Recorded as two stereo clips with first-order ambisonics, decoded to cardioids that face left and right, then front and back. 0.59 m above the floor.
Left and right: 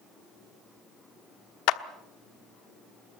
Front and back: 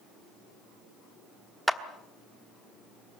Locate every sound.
1.7 s a clap: 90° left, 1.0 m